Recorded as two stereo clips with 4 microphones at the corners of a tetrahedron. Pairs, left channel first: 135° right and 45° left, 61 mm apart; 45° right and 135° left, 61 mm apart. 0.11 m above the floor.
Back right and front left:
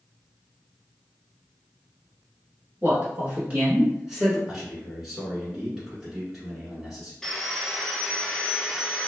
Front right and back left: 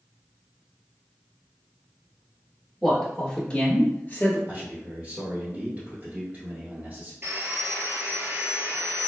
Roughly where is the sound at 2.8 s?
Ahead left.